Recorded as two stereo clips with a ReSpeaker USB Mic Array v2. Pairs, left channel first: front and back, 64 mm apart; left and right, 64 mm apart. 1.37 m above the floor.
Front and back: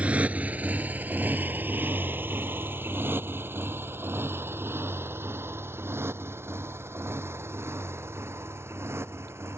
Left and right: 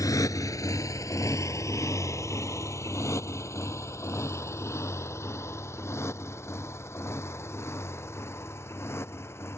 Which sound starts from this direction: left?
A motorcycle, at 0.0 s.